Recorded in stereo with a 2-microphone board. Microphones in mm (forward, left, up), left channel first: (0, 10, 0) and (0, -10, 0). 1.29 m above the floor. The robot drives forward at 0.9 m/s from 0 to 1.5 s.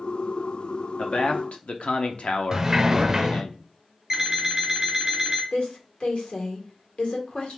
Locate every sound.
1.0 s a man speaking: 60° left (ahead or behind), 0.7 m; by 3.5 s 75° left (ahead or behind), 0.6 m
2.5 s a sliding door: 20° right (ahead or behind), 0.5 m
4.1 s an alarm clock: 25° right (ahead or behind), 1.5 m
5.5 s a woman speaking: 75° left (ahead or behind), 1.5 m